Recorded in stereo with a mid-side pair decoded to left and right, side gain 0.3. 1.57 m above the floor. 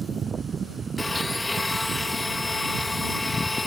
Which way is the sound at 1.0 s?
30° left.